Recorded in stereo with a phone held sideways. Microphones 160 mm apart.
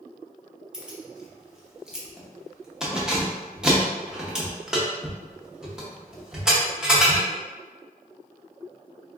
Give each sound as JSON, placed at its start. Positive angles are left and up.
{"t": 0.7, "sound": "keys jangling", "side_deg": -5, "distance_m": 0.8}